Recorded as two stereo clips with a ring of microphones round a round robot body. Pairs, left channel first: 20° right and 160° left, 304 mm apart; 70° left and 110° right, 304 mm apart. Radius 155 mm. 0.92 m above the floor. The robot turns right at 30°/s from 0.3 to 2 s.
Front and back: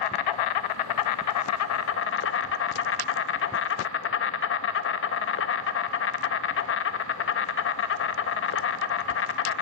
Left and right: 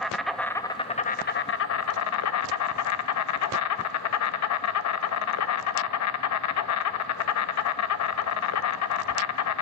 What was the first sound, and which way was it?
An insect, 20° right.